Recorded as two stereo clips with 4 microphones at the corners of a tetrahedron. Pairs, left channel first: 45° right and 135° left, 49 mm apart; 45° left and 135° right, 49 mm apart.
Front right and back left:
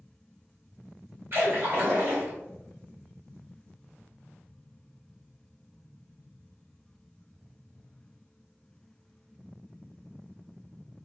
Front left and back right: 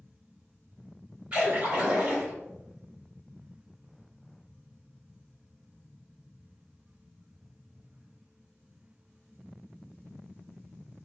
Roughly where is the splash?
Behind.